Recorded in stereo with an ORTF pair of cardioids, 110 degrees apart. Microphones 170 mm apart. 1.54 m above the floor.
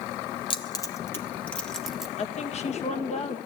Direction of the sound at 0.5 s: 30° left.